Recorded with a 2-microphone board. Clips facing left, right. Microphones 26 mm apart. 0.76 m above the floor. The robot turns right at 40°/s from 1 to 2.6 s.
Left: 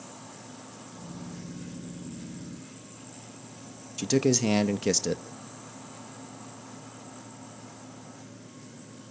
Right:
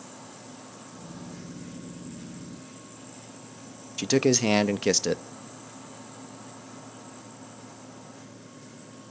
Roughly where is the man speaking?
Right.